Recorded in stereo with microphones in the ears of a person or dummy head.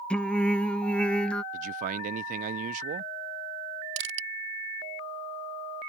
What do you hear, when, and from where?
0.1 s singing: centre (ahead or behind)
1.5 s a man speaking: 50° right (ahead or behind)
4.0 s crushing: 55° right (ahead or behind)